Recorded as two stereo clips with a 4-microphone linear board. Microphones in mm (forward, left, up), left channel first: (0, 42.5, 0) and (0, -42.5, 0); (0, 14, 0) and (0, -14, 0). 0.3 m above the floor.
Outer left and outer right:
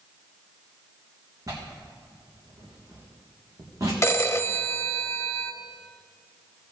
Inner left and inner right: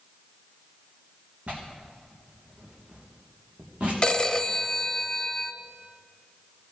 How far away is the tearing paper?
About 3.5 m.